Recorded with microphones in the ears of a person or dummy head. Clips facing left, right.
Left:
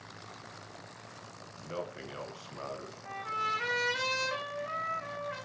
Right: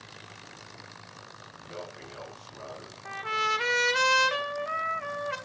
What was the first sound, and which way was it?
A man speaking, 40° left (ahead or behind).